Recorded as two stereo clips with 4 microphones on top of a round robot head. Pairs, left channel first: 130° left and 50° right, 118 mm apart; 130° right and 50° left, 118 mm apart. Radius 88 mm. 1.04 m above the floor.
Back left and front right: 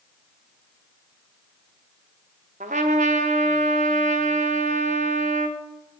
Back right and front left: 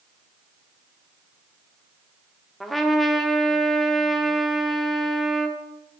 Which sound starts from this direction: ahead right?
A trumpet, at 2.6 s.